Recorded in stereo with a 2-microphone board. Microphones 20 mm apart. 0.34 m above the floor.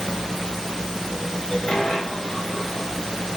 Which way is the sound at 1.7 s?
50° left (ahead or behind).